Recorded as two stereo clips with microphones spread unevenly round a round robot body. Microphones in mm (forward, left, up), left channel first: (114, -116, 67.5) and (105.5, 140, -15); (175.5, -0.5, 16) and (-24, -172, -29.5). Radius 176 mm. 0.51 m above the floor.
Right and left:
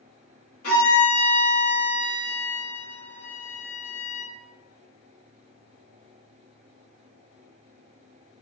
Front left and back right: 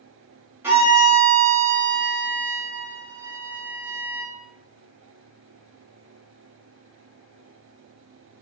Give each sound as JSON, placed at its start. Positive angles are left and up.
{"t": 0.6, "sound": "a violin", "azimuth_deg": -60, "distance_m": 1.4}